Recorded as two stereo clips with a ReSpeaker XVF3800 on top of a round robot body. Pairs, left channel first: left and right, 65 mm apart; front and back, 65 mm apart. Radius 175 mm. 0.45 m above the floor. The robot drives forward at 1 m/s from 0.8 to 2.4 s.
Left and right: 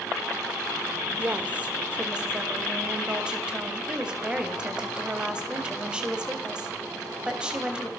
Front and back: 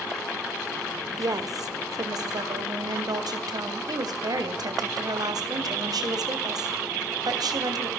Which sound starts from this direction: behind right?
A woman speaking, at 1.2 s.